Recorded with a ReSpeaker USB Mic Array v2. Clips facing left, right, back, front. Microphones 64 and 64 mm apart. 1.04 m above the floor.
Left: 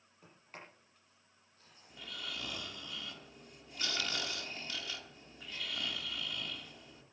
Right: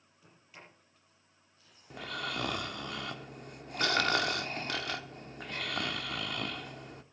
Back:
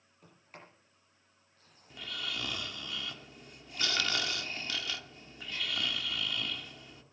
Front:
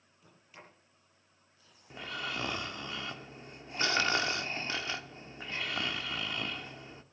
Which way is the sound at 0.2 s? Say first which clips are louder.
Left 2 dB, back 1 dB; 135° left.